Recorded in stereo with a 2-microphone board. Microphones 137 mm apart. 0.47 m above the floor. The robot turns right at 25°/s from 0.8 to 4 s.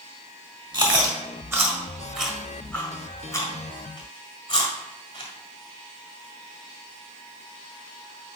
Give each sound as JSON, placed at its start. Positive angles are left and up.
{"t": 0.7, "sound": "chewing", "side_deg": -35, "distance_m": 1.5}